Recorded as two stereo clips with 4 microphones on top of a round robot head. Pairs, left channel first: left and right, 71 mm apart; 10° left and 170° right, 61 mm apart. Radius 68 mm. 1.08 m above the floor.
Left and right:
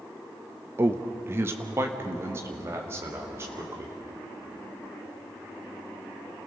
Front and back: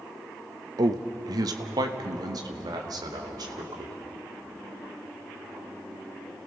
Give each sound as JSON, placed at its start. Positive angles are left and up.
{"t": 0.8, "sound": "a man speaking", "azimuth_deg": -150, "distance_m": 0.8}